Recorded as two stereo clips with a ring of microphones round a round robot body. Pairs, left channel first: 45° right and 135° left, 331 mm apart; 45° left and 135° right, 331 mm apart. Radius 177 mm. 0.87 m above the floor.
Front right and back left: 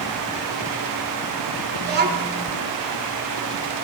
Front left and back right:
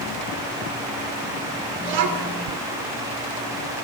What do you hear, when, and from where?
1.8 s a child speaking: 165° right, 2.5 m